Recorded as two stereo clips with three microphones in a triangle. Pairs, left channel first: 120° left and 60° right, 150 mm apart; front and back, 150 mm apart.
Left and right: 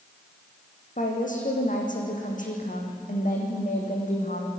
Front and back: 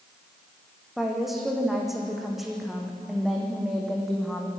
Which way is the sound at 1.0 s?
90° left.